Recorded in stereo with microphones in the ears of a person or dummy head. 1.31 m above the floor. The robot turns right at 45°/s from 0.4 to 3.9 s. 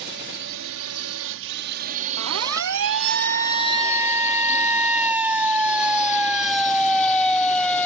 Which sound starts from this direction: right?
A siren, at 2.2 s.